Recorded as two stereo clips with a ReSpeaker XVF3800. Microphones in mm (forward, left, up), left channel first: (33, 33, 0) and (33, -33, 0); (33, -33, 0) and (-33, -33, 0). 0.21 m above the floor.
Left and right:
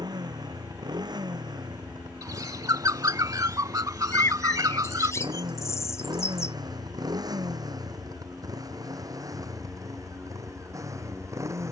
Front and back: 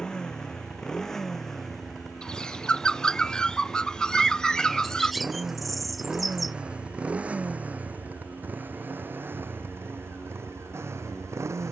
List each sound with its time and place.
0.0 s a motorcycle: 80° right; by 11.7 s 135° right
2.2 s a bird: 75° right
4.1 s a bird: 90° left